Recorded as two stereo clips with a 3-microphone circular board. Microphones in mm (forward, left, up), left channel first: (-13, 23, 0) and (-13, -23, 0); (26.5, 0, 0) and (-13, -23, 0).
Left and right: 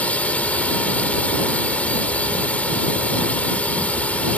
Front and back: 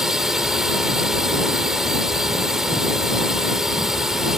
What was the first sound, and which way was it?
A drone, 135° left.